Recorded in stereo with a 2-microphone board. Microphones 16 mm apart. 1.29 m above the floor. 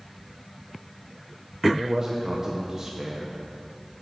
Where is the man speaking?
35° right (ahead or behind), 0.7 m.